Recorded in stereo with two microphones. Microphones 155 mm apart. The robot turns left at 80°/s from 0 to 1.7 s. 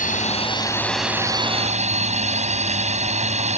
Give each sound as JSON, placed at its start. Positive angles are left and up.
{"t": 0.0, "sound": "a drone", "azimuth_deg": 80}